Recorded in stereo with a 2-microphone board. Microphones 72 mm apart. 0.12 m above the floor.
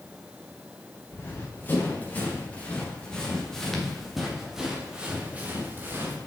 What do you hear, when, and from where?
1.1 s running footsteps: 30° left (ahead or behind), 4 m; by 6.2 s 30° right (ahead or behind), 2.5 m